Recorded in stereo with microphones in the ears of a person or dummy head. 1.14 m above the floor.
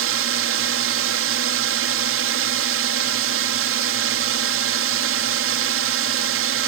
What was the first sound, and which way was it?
A drone, 60° right (ahead or behind).